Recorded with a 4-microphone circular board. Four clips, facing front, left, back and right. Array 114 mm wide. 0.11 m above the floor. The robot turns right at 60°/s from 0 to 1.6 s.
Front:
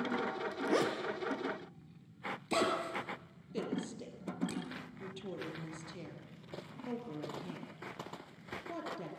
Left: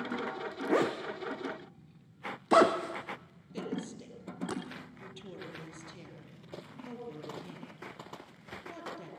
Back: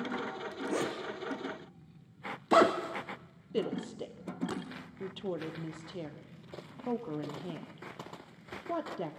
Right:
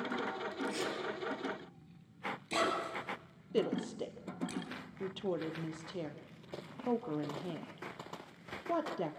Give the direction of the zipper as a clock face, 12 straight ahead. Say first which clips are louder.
Left 8 dB, front 2 dB; 10 o'clock.